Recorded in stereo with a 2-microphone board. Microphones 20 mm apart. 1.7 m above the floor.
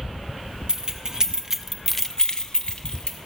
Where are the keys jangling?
35° right (ahead or behind), 1.6 m; by 3.2 s 35° left (ahead or behind), 1.6 m.